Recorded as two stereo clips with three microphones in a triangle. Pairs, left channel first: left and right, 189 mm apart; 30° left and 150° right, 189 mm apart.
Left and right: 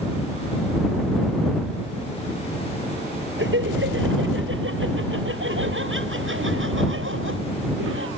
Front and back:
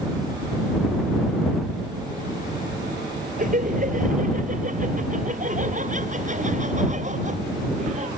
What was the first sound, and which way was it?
Laughter, 100° right.